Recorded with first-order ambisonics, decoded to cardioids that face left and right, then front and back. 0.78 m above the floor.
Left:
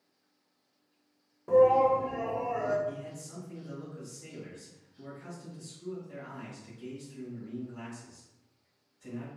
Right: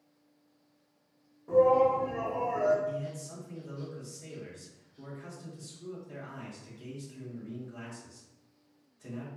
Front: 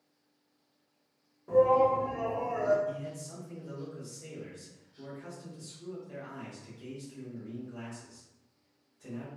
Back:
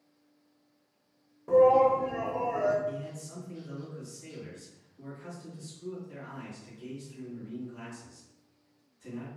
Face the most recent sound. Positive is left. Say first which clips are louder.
# right 2 dB, back 1 dB
turn(degrees=-55)